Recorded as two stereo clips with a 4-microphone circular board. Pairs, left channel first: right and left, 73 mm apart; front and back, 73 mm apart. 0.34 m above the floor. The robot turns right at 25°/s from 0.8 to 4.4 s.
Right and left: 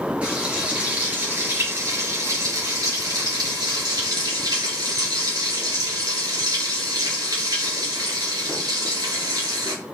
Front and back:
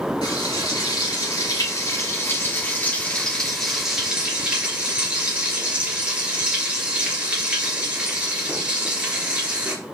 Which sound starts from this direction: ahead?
Frying, at 0.2 s.